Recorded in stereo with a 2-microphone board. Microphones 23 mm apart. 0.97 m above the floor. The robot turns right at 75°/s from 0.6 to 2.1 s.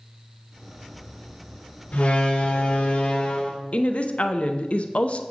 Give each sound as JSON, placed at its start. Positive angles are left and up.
{"t": 1.9, "sound": "a door slam", "side_deg": 75, "distance_m": 1.6}
{"t": 3.7, "sound": "a woman speaking", "side_deg": 60, "distance_m": 0.6}